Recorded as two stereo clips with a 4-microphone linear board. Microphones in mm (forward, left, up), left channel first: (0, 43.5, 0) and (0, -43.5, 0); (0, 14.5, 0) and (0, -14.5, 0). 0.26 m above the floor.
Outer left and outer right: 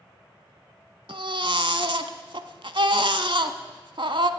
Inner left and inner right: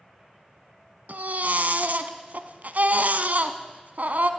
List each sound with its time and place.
1.1 s a baby crying: 65° right (ahead or behind), 0.8 m